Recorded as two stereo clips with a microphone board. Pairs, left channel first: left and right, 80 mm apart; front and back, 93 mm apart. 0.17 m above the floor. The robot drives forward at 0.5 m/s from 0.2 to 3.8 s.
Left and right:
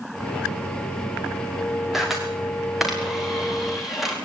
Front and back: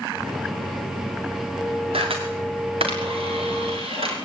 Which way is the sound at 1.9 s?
175° right.